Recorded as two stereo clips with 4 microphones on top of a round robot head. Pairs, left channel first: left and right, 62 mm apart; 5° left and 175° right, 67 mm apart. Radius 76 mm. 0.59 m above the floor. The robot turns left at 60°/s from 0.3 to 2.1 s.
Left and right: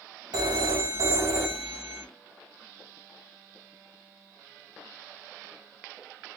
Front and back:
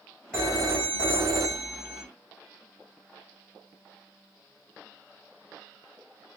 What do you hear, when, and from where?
0.3 s a phone ringing: 75° right, 1.9 m; by 2.0 s straight behind, 1.9 m